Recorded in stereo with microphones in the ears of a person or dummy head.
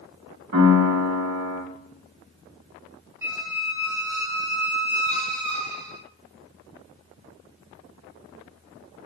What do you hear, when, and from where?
0.5 s a piano: 65° right (ahead or behind), 1.9 m
3.2 s a squeak: 20° right (ahead or behind), 0.9 m